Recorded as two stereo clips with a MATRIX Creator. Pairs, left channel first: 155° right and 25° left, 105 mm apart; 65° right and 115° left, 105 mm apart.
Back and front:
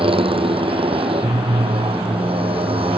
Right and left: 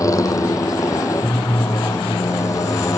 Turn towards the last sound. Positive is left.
turn(degrees=-5)